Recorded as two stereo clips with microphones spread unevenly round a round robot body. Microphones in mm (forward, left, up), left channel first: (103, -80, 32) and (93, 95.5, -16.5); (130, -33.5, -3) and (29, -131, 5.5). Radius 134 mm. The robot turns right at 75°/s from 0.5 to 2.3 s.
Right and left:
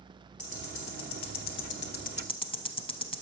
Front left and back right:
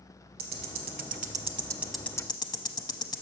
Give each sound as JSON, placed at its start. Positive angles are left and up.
{"t": 0.4, "sound": "ticking", "azimuth_deg": -155, "distance_m": 0.8}